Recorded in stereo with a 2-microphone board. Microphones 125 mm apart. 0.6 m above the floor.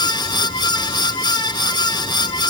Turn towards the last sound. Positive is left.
No sound to turn to.